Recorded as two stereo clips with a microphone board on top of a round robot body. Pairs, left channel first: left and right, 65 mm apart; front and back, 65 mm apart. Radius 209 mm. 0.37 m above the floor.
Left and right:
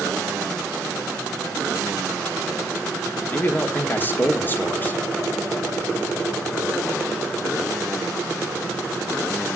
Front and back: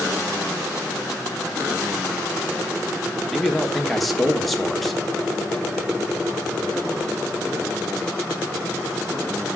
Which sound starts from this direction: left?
A man speaking, at 3.3 s.